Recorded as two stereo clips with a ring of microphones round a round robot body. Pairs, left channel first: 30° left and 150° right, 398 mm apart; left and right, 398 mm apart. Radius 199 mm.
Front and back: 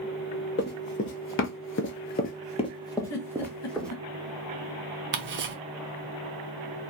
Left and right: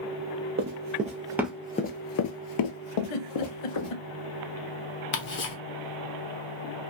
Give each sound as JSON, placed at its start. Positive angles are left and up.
{"t": 0.6, "sound": "running footsteps", "azimuth_deg": -35, "distance_m": 0.8}
{"t": 3.1, "sound": "a giggle", "azimuth_deg": 80, "distance_m": 0.7}
{"t": 5.1, "sound": "ticking", "azimuth_deg": 150, "distance_m": 0.7}